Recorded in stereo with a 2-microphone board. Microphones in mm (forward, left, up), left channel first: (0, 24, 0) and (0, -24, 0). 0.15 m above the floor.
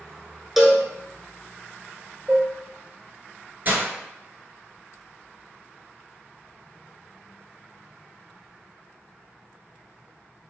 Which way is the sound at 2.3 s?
40° right (ahead or behind).